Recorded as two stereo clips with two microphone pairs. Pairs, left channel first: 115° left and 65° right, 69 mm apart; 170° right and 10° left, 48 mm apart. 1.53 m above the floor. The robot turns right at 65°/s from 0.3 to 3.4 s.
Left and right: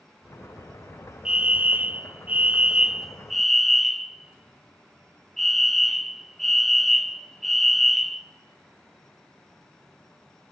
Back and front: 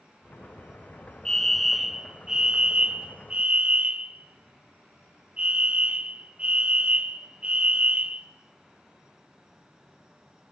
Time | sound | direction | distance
1.2 | a fire alarm | 110° right | 0.7 m